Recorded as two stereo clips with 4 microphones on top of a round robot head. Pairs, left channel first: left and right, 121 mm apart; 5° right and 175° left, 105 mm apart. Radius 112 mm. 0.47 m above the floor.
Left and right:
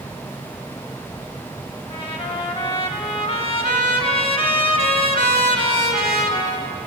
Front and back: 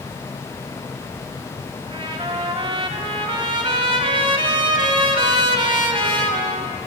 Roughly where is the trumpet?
Behind left.